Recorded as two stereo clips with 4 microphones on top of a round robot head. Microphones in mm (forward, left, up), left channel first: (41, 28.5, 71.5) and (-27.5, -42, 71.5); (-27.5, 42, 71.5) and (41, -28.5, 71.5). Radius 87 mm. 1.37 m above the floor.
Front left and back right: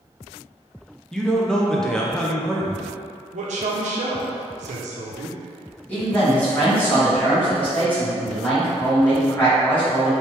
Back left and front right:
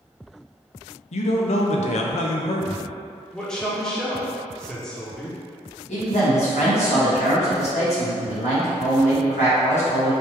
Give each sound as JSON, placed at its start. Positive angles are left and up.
{"t": 1.1, "sound": "a man speaking", "azimuth_deg": 130, "distance_m": 0.5}
{"t": 3.3, "sound": "a man speaking", "azimuth_deg": -145, "distance_m": 0.6}
{"t": 5.9, "sound": "a man speaking", "azimuth_deg": 120, "distance_m": 1.7}